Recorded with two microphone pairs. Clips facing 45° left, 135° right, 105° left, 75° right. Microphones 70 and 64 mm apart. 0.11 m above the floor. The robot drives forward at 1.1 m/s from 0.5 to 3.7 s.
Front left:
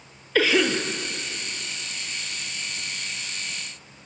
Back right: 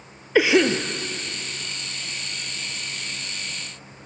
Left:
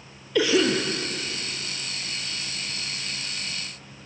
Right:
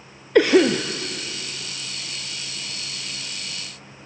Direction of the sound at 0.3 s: 65° right.